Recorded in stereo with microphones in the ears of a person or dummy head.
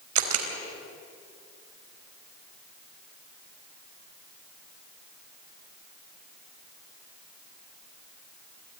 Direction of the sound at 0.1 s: 80° right.